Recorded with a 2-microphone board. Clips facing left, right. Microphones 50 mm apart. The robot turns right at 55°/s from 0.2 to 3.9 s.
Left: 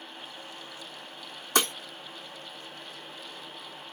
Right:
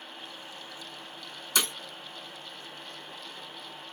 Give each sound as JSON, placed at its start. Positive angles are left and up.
{"t": 1.6, "sound": "breaking glass", "side_deg": 45, "distance_m": 1.1}